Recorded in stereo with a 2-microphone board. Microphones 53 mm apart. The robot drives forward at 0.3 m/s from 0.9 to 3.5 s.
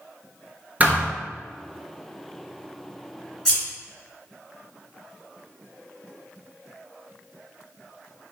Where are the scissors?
10° left (ahead or behind), 1.9 m.